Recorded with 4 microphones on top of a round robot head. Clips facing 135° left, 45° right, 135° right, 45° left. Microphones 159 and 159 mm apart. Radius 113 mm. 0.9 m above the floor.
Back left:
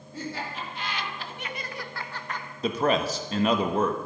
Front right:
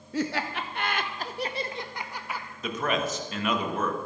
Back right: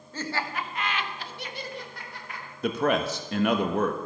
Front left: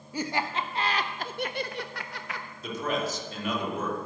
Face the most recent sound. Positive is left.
turn(degrees=-165)